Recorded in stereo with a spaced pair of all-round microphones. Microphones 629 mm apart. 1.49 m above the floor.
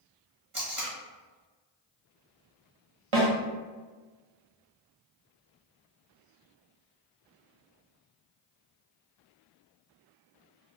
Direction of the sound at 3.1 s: 50° right (ahead or behind).